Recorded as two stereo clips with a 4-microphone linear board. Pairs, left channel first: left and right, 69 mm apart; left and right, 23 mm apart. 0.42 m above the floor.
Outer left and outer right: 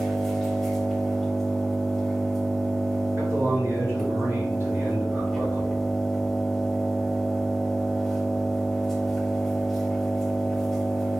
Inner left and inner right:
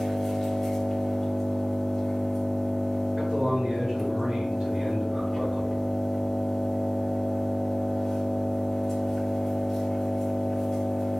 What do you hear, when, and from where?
0.0 s an engine running: 5° left (ahead or behind), 1.9 m
3.2 s a man speaking: 35° right (ahead or behind), 1.6 m